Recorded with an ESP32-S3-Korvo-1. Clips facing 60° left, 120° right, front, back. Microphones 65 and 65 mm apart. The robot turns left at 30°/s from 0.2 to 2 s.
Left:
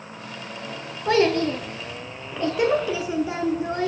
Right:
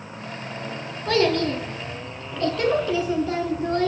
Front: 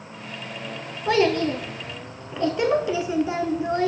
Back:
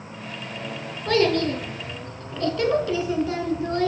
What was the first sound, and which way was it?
A child speaking, 45° left.